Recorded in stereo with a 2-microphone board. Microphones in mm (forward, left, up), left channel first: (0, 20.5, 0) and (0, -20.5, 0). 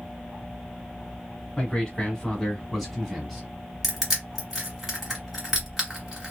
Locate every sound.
1.6 s a man speaking: 25° left (ahead or behind), 1.4 m; by 3.5 s 5° right (ahead or behind), 1.3 m
3.8 s crushing: 10° right (ahead or behind), 1.8 m